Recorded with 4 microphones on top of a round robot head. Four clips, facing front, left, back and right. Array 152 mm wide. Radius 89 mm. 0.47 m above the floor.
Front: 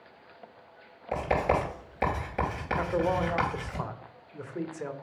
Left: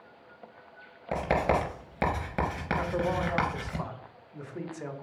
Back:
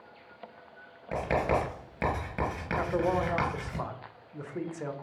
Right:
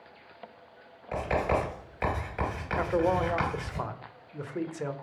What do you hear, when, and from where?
1.1 s writing: 90° left, 3 m
2.8 s a man speaking: 85° right, 0.8 m